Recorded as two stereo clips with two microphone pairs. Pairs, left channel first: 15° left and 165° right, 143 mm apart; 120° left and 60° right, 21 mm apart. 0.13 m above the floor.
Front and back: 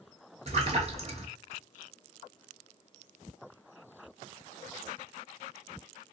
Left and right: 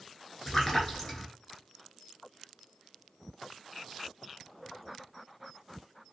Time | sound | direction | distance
0.5 | a splash | 170° right | 0.8 m